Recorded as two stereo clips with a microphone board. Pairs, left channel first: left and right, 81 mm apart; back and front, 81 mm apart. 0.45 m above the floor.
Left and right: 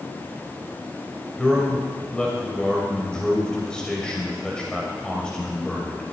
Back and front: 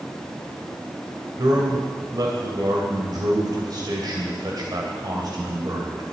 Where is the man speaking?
10° left, 2.5 m.